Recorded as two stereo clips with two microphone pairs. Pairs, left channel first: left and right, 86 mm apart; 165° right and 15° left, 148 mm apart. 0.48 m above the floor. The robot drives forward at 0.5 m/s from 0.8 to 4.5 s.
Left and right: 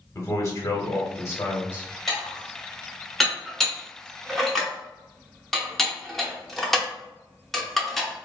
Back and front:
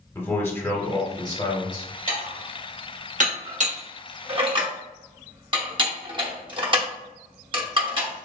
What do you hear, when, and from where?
0.1 s a man speaking: 125° left, 1.0 m; by 1.9 s 150° left, 1.3 m
2.1 s dishes clattering: straight ahead, 1.7 m